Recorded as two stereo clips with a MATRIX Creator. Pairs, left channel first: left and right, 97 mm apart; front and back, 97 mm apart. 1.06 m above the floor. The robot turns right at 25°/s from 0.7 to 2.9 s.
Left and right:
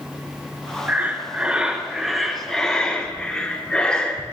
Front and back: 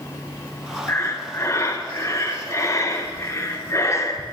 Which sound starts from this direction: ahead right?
Breathing, at 0.9 s.